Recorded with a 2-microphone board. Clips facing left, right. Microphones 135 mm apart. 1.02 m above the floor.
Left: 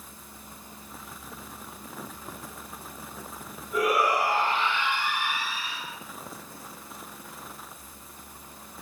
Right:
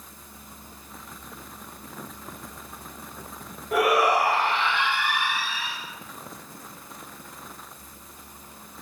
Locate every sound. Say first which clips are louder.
3.7 s a shout: right 4 dB; 75° right (ahead or behind), 9 m